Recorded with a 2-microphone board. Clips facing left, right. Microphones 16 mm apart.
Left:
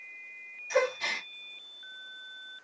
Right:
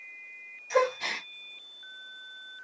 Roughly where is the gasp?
Centre.